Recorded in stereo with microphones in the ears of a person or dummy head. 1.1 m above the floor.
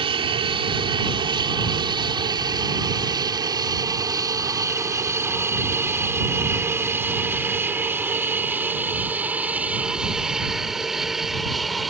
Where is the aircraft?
20° right (ahead or behind); by 11.9 s 5° left (ahead or behind).